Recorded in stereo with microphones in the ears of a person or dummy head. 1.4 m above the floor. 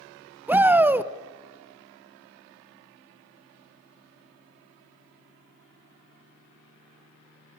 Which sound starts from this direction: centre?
A shout, at 0.5 s.